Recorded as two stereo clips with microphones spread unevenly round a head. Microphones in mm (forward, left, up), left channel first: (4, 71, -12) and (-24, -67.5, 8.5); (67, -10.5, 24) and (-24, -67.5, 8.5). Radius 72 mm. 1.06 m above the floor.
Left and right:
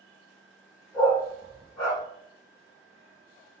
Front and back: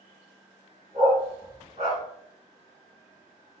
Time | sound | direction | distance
0.9 | a dog barking | 145° left | 2.0 m